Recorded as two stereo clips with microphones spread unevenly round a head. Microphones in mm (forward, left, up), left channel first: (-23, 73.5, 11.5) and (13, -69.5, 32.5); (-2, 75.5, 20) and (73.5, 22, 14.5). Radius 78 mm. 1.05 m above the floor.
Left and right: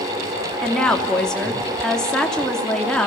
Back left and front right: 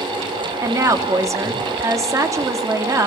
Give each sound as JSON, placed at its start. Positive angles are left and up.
{"t": 0.6, "sound": "a woman speaking", "azimuth_deg": 20, "distance_m": 2.5}